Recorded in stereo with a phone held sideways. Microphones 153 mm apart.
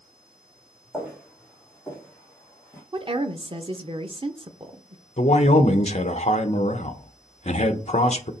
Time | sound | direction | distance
0.9 | footsteps | 5° right (ahead or behind) | 3 m
2.9 | a woman speaking | 35° right (ahead or behind) | 0.8 m
5.2 | a man speaking | 45° left (ahead or behind) | 0.8 m